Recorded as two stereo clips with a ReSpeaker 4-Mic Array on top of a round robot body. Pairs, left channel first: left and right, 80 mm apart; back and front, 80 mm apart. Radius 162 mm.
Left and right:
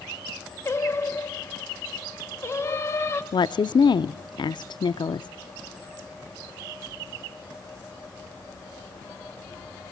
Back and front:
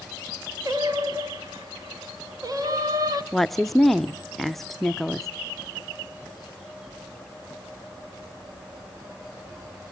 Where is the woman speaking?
95° left, 0.5 m.